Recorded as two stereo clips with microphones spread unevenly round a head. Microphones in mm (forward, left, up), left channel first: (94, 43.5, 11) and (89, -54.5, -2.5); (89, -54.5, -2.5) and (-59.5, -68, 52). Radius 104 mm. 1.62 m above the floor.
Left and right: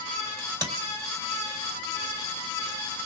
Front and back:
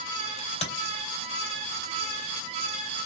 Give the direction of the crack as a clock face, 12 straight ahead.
2 o'clock.